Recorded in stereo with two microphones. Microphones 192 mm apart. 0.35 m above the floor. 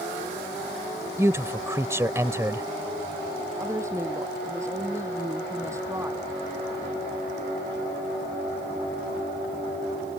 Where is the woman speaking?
15° right (ahead or behind).